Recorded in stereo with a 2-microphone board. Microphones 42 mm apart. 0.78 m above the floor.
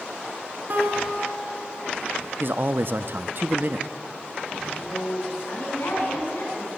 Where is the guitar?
55° right (ahead or behind), 4.5 m.